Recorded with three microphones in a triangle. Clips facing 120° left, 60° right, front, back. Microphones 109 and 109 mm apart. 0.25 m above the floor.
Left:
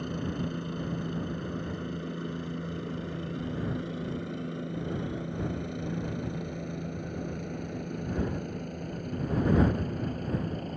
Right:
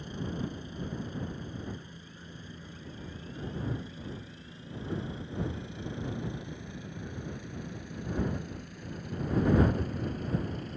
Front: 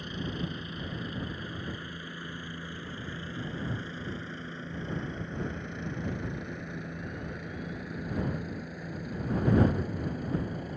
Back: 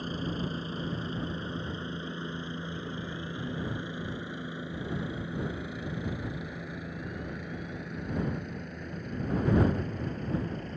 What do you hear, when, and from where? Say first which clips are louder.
0.0 s a helicopter: left 4 dB, back 2 dB; 130° left; by 10.8 s 80° left